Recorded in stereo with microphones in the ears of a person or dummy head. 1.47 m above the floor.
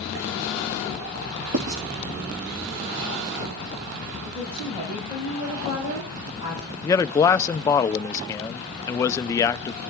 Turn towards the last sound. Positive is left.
turn(degrees=20)  # may be behind; listen again after turning